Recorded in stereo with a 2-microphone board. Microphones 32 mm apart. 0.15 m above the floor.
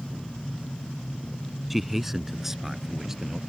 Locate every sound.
1.7 s a man speaking: 5° right (ahead or behind); by 3.4 s 10° right (ahead or behind)